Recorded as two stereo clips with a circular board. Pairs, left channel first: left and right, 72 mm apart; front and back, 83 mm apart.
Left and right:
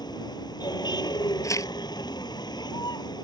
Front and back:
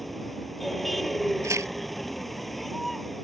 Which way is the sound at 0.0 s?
85° left.